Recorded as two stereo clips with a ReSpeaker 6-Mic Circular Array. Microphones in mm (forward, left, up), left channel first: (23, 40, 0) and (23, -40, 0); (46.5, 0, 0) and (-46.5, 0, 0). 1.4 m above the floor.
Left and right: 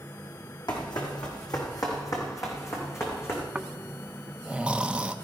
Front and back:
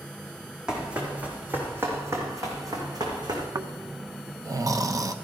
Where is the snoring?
160° right, 0.6 m.